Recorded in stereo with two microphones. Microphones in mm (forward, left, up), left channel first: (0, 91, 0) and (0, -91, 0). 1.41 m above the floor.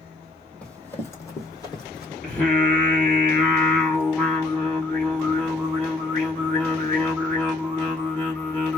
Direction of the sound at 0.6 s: 10° left (ahead or behind).